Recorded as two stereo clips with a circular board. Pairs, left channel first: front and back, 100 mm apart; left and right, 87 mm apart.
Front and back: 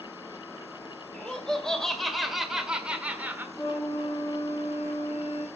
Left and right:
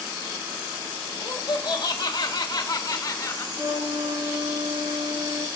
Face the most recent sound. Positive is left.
turn(degrees=-55)